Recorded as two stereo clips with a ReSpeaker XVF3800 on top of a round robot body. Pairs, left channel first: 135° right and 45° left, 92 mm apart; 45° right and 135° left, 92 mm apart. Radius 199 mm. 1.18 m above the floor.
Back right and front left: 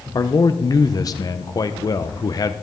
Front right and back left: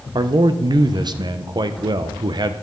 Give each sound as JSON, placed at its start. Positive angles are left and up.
{"t": 0.1, "sound": "a man speaking", "azimuth_deg": 175, "distance_m": 1.0}